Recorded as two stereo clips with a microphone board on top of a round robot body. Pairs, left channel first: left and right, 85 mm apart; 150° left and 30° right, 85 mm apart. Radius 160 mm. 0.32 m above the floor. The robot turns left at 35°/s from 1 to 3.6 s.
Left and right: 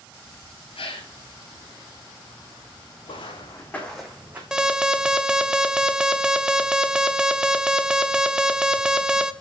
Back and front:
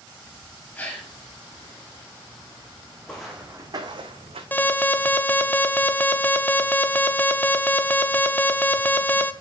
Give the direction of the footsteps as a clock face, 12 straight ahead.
10 o'clock.